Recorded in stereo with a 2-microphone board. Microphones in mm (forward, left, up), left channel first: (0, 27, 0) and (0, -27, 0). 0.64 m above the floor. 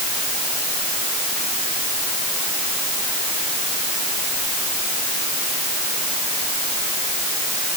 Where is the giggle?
No giggle in this recording.